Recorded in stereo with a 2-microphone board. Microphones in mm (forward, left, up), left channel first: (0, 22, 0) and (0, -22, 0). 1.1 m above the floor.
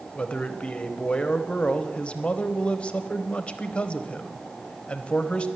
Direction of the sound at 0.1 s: 30° left (ahead or behind).